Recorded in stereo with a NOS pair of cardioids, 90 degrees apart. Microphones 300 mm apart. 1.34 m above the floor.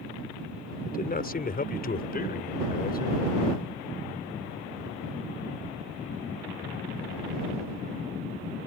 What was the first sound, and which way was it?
A man speaking, 30° left.